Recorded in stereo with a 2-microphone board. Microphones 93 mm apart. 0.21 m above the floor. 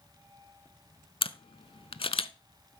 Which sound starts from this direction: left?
A camera shutter, at 1.2 s.